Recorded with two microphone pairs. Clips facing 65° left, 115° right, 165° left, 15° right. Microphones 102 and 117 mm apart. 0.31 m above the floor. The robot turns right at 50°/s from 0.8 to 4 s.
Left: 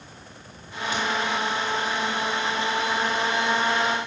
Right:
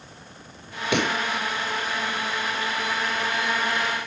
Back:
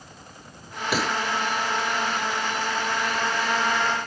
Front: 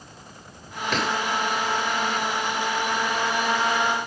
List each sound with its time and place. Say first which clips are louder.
0.9 s a pop: right 3 dB, even; 115° right; by 1.2 s 100° right